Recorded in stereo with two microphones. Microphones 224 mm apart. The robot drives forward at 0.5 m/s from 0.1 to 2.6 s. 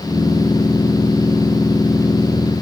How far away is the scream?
I don't hear a scream.